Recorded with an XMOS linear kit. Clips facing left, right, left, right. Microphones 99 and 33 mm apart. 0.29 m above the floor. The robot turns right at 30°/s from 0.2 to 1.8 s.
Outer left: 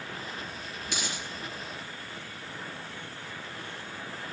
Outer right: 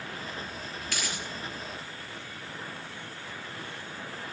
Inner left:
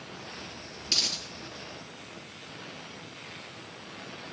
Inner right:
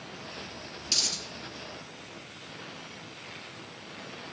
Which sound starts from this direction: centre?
A dropped coin, at 0.9 s.